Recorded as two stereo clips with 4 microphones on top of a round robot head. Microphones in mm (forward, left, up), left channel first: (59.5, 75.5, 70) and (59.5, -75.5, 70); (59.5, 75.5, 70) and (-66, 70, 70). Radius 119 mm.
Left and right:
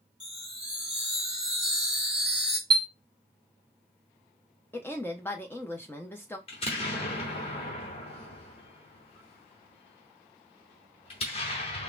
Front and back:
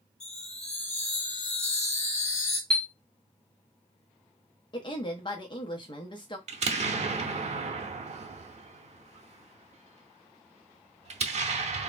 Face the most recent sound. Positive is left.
turn(degrees=150)